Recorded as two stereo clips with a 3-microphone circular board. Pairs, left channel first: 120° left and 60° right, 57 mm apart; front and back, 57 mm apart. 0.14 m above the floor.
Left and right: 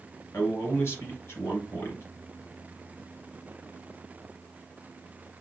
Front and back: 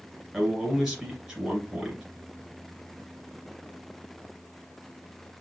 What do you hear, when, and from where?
0.3 s a man speaking: 95° left, 2.5 m